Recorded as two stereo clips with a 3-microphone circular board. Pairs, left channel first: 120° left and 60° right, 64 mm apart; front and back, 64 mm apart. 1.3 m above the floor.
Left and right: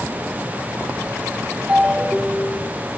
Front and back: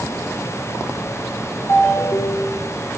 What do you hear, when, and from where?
1.7 s a ringtone: 25° left, 1.2 m